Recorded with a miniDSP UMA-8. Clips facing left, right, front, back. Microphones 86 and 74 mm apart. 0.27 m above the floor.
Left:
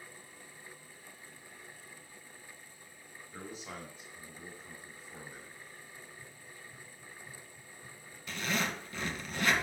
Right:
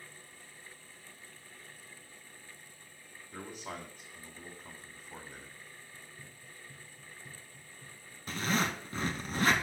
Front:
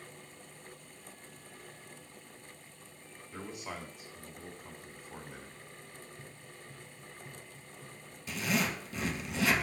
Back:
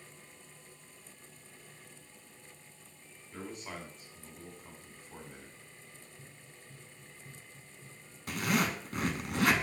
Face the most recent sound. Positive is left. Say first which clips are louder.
# right 3 dB, back 2 dB
turn(degrees=-140)